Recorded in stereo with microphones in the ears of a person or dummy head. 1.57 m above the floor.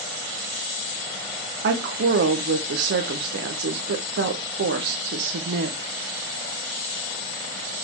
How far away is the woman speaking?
About 0.9 m.